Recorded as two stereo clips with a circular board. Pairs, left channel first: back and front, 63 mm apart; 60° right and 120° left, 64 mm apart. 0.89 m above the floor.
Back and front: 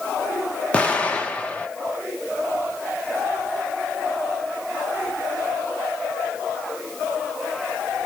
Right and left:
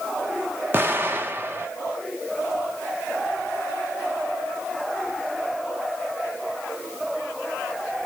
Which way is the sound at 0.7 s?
125° left.